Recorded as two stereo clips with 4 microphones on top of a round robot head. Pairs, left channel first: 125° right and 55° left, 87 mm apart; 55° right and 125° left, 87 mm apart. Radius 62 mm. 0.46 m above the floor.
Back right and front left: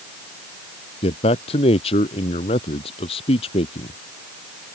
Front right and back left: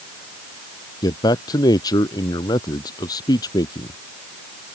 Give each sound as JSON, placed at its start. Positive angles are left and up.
{"t": 1.0, "sound": "a man speaking", "azimuth_deg": -105}